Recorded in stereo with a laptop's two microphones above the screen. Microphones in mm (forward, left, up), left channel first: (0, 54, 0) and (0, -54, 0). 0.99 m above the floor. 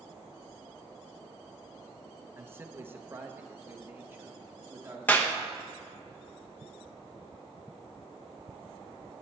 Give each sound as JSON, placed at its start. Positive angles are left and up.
{"t": 2.4, "sound": "a man speaking", "side_deg": -20, "distance_m": 1.1}
{"t": 5.1, "sound": "a clap", "side_deg": 15, "distance_m": 0.9}